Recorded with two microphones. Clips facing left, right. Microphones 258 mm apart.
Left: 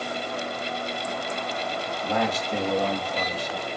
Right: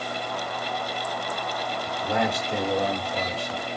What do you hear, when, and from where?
1.9 s a man speaking: 15° right (ahead or behind), 1.0 m